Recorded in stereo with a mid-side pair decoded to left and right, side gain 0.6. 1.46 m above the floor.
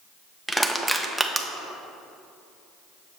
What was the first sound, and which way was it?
Crushing, 5° right.